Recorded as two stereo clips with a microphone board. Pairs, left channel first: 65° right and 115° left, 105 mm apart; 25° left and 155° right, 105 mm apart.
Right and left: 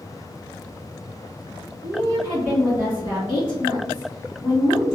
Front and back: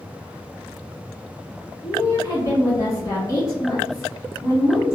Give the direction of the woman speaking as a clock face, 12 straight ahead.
10 o'clock.